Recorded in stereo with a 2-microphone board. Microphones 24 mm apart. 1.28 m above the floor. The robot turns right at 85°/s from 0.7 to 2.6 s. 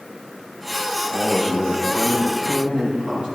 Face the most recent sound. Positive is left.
turn(degrees=-115)